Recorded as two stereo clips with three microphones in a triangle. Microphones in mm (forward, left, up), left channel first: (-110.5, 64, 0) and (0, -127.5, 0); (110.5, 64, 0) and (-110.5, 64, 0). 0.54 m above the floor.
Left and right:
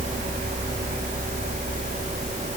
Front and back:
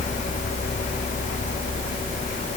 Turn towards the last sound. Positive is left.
No sound to turn to.